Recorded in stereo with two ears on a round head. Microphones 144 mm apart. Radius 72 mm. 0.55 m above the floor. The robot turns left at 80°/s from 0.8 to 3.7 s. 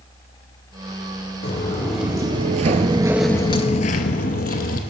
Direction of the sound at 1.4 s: 40° left (ahead or behind).